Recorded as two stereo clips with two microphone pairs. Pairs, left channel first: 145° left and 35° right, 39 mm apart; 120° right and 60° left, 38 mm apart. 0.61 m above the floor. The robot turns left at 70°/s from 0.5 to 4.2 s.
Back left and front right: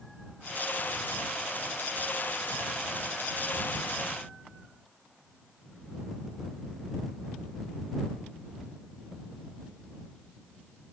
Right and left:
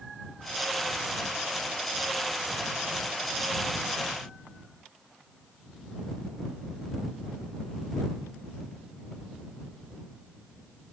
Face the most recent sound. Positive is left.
No sound to turn to.